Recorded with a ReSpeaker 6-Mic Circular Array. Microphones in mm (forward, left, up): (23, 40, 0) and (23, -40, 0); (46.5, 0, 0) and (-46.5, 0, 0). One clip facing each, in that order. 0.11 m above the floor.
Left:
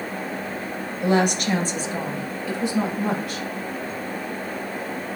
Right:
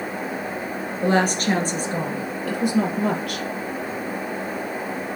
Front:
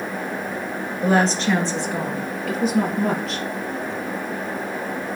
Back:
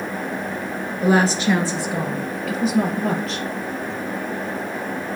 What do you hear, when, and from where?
1.0 s a woman speaking: 105° right, 1.5 m; by 3.5 s 90° right, 3 m